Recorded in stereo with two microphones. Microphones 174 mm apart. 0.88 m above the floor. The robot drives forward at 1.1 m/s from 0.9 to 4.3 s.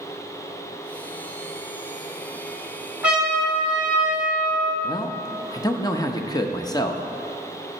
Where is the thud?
I don't hear a thud.